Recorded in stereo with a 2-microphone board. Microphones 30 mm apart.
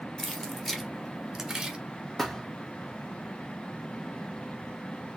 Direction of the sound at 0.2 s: 20° left (ahead or behind).